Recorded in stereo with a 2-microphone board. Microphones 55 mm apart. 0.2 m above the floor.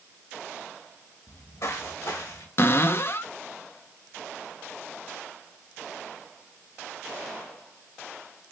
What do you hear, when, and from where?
1.3 s footsteps: 60° left (ahead or behind), 2.5 m; by 2.5 s 85° left, 2.5 m
2.6 s a cupboard door: 45° left (ahead or behind), 0.6 m